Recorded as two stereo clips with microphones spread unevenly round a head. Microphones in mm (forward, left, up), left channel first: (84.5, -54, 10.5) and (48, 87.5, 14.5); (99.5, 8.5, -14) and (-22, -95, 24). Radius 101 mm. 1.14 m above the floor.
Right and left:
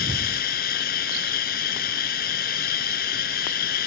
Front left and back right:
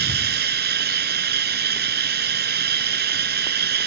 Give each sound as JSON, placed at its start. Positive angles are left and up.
{"t": 0.0, "sound": "running water", "azimuth_deg": -125}